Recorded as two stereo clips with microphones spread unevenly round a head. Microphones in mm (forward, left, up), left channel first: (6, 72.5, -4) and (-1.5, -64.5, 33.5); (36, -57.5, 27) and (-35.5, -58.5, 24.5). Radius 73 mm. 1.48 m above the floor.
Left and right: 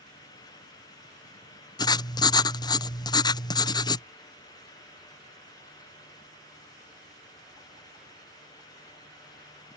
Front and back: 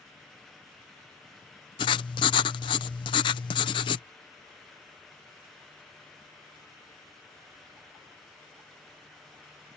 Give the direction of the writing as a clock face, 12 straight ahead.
11 o'clock.